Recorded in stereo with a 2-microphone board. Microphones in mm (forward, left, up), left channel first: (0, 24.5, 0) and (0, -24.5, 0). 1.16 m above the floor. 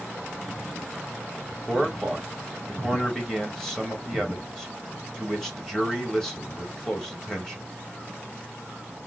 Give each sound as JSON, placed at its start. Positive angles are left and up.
{"t": 1.5, "sound": "a man speaking", "side_deg": 10, "distance_m": 1.3}